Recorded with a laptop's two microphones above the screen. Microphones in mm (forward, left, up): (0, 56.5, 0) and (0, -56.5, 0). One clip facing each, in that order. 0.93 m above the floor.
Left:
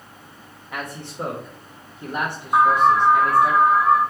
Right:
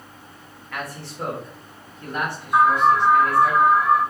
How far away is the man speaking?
About 0.6 m.